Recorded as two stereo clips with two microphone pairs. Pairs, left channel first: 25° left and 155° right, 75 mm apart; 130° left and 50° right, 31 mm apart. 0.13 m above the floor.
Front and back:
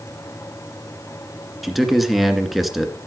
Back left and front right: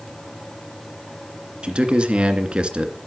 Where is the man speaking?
65° right, 2.0 m.